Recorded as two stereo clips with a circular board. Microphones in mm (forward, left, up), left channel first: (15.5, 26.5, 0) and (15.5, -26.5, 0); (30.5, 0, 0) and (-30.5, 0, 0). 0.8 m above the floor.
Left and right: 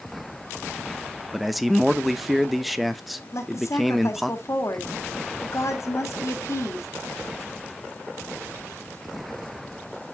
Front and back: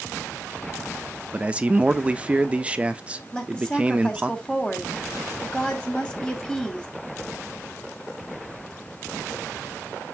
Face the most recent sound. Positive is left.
turn(degrees=75)